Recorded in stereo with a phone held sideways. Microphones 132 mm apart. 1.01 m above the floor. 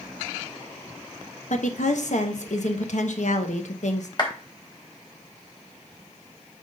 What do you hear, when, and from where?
1.5 s a woman speaking: 65° left (ahead or behind), 1.2 m
4.2 s a clap: 35° left (ahead or behind), 2.5 m